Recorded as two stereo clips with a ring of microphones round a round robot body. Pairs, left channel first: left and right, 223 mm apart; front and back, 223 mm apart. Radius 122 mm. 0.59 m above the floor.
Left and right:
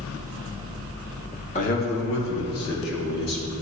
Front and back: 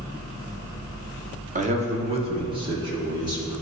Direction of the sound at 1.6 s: 140° left.